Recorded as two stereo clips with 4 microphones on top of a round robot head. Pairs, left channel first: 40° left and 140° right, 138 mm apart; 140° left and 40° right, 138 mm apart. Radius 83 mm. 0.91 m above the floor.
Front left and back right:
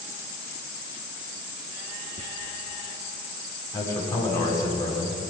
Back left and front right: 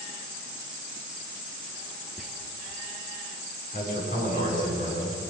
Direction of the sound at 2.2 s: 125° right.